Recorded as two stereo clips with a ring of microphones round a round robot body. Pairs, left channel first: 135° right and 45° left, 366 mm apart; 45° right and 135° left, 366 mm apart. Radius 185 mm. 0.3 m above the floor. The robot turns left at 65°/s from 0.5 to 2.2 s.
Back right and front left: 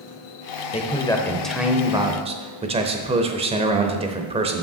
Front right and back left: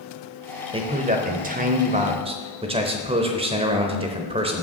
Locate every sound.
0.7 s a man speaking: 175° right, 0.9 m; by 4.6 s 90° left, 0.9 m